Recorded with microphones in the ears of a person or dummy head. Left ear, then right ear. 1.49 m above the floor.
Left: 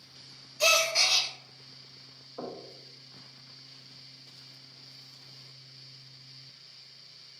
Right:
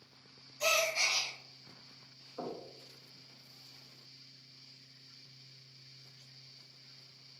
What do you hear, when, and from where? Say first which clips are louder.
0.6 s a gasp: left 6 dB; 85° left, 0.8 m
2.4 s knocking: left 2 dB; 15° left (ahead or behind), 0.9 m